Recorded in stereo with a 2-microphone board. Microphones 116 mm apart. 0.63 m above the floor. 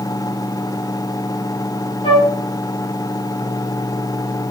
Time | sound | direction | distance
2.0 | a flute | 50° left (ahead or behind) | 0.9 m